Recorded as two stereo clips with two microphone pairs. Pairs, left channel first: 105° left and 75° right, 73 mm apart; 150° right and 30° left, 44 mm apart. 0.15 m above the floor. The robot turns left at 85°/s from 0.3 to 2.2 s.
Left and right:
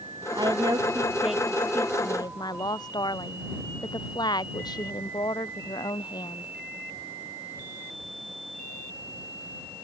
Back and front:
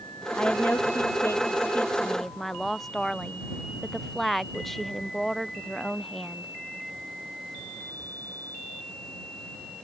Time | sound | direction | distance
0.3 | a woman speaking | 80° right | ?